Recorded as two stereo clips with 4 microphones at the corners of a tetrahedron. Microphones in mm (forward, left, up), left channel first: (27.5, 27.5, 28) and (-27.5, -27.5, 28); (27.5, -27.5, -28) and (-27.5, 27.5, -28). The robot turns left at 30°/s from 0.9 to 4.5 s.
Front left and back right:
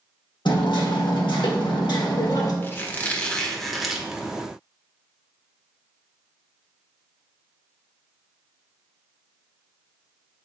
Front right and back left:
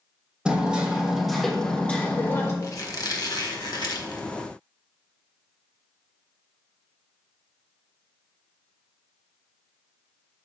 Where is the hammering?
55° left, 1.5 m; by 2.5 s 10° left, 1.5 m.